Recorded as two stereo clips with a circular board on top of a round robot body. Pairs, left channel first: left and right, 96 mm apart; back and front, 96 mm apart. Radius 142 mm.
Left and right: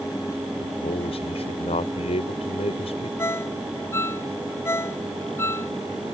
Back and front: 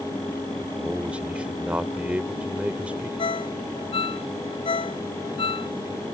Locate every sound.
0.6 s a man speaking: 80° left
3.2 s a ringtone: 155° left